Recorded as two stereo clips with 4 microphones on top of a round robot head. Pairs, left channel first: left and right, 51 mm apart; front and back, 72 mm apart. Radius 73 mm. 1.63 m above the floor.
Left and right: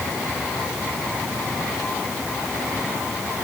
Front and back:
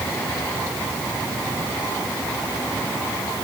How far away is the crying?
No crying in this recording.